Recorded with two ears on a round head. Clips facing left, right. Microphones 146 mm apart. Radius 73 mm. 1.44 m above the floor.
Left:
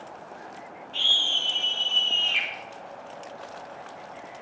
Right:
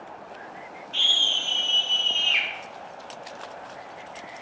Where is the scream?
50° right (ahead or behind), 1.5 m; by 2.5 s 75° right (ahead or behind), 1.9 m.